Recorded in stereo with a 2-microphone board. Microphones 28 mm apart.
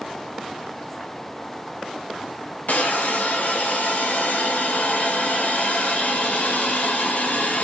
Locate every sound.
2.7 s a hiss: 90° left, 0.6 m